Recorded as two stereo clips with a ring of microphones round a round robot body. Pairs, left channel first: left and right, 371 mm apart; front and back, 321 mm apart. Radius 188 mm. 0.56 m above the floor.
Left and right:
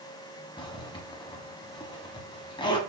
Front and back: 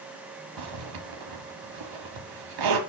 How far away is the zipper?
About 1.4 m.